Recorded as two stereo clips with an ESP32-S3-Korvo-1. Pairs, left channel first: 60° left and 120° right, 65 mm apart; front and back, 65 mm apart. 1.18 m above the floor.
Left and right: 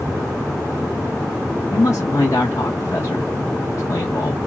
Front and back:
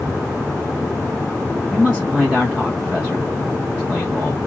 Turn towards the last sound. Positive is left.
turn(degrees=100)